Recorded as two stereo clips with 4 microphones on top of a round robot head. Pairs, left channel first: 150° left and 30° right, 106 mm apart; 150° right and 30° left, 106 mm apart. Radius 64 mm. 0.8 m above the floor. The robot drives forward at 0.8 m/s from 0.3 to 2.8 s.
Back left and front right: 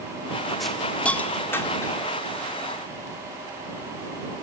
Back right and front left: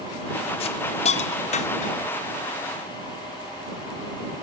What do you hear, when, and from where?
0.6 s a hiss: 125° right, 1.4 m; by 2.1 s 150° right, 2.5 m